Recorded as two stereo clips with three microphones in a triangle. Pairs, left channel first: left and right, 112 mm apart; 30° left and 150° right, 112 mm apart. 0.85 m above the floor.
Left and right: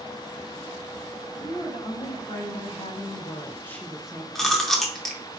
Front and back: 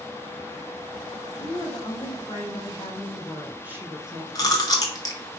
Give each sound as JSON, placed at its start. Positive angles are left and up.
{"t": 1.4, "sound": "a woman speaking", "azimuth_deg": 60, "distance_m": 1.4}
{"t": 4.3, "sound": "chewing", "azimuth_deg": 5, "distance_m": 0.7}